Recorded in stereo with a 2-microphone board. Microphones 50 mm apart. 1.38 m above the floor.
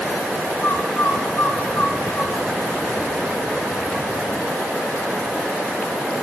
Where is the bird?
45° left (ahead or behind), 1.7 m.